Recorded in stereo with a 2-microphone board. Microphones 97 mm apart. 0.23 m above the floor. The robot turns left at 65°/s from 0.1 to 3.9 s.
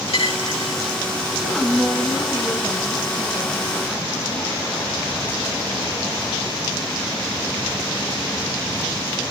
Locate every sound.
0.1 s a dropped coin: 70° left (ahead or behind), 6 m; by 0.8 s 65° left (ahead or behind), 6 m
1.4 s a woman speaking: 5° right, 1.6 m; by 4.5 s 170° right, 1.6 m